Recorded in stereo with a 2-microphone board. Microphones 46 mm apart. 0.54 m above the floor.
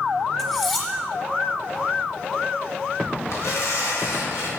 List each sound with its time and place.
0.4 s cutlery clinking: 5° left (ahead or behind), 2 m
3.3 s tearing paper: 80° left, 3 m